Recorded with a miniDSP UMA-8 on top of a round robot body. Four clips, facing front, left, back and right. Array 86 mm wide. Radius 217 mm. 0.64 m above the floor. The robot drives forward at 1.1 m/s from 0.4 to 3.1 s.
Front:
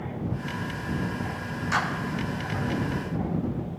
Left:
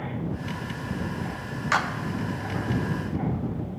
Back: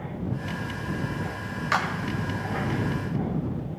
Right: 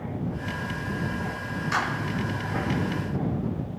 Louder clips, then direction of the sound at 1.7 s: Left 3 dB, back 1 dB; 130° left.